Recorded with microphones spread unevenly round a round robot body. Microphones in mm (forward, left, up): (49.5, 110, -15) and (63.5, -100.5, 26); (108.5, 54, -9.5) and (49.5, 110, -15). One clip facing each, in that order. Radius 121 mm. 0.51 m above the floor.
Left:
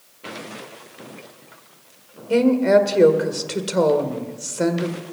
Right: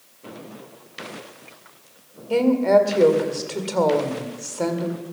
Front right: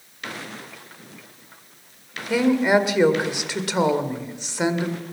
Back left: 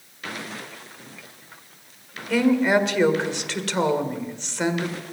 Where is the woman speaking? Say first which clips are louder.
Left 2 dB, front right 1 dB; 35° left, 1.9 m.